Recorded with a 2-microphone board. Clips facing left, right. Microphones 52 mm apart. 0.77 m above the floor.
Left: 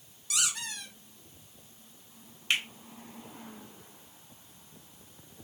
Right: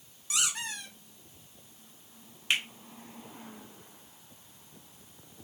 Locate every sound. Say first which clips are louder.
0.3 s a squeak: right 1 dB; 40° right (ahead or behind), 1.3 m
2.5 s a finger snap: even; 10° right (ahead or behind), 1.7 m